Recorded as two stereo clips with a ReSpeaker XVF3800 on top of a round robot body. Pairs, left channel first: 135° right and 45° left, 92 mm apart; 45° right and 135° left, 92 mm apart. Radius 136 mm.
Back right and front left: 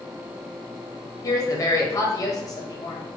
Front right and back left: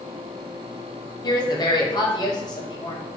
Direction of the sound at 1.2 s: 85° right.